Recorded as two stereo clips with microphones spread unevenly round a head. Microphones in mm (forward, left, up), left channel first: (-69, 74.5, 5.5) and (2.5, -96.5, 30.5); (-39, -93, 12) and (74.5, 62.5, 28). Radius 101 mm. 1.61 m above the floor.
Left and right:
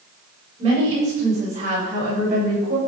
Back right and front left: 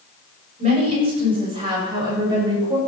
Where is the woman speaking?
5° right, 8 m; by 2.8 s 15° right, 8.5 m.